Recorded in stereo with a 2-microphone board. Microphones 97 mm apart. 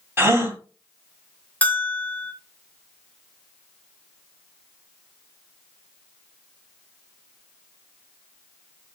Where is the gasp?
25° right (ahead or behind), 1.6 m.